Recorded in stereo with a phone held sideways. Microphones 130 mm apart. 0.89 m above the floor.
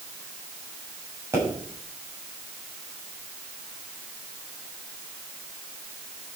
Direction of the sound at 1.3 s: 20° right (ahead or behind).